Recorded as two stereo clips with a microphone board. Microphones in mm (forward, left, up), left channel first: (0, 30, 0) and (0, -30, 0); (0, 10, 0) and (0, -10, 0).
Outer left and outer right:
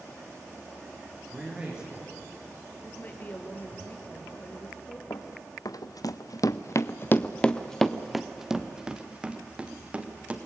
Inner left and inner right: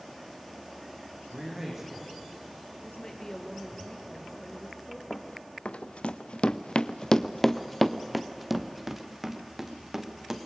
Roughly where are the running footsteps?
Left.